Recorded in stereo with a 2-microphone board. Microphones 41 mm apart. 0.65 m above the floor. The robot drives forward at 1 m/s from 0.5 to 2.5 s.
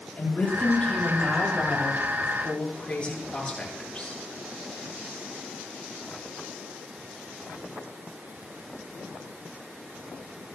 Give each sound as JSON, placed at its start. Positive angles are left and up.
{"t": 0.2, "sound": "a woman speaking", "side_deg": 35, "distance_m": 7.0}